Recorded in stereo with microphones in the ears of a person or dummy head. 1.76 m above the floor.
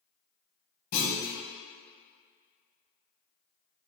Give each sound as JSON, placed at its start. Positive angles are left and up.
{"t": 0.9, "sound": "a clunk", "side_deg": 50, "distance_m": 1.3}